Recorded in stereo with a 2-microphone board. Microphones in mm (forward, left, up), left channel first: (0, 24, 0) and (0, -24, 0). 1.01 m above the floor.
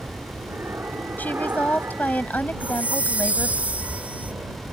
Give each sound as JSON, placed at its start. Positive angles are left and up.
{"t": 0.0, "sound": "an aircraft", "side_deg": -55}
{"t": 1.2, "sound": "a woman speaking", "side_deg": 40}
{"t": 2.6, "sound": "a chime", "side_deg": -30}